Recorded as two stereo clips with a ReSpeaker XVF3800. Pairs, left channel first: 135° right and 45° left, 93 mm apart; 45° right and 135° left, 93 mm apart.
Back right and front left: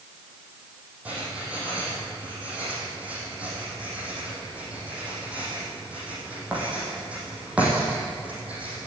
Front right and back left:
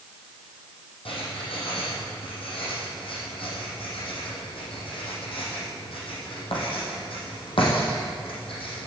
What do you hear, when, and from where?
1.1 s writing: 30° right, 5.5 m